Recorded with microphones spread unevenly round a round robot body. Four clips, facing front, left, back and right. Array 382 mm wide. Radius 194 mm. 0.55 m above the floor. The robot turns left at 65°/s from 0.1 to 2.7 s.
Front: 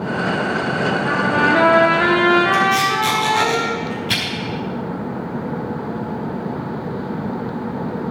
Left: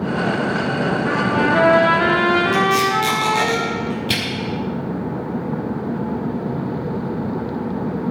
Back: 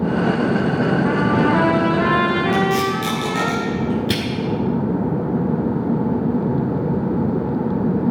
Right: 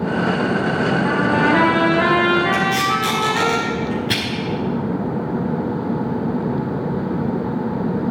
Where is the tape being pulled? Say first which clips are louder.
Left 2 dB, front 1 dB; 175° left, 5 m; by 4.2 s 165° left, 5 m.